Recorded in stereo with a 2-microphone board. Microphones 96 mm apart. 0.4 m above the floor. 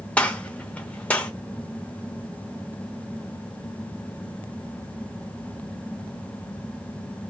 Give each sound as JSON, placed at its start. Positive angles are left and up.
{"t": 0.2, "sound": "a gunshot", "side_deg": 15, "distance_m": 0.6}